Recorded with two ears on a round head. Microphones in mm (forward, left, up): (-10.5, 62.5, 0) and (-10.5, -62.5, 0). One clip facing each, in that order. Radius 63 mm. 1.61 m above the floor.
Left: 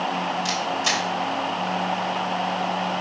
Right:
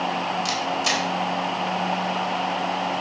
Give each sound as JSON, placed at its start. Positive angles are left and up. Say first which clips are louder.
{"t": 0.5, "sound": "a camera shutter", "louder": "even", "side_deg": -5, "distance_m": 2.5}